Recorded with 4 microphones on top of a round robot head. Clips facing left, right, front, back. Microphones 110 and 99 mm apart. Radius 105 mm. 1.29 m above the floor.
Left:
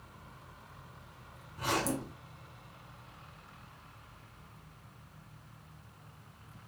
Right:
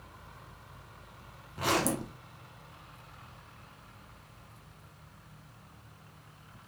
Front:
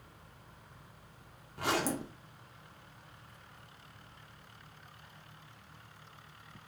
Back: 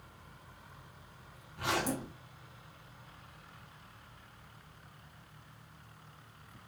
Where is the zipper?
55° right, 0.9 m.